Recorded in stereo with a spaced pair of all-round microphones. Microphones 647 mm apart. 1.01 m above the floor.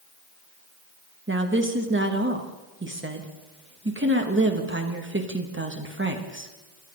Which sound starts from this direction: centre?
A woman speaking, at 1.3 s.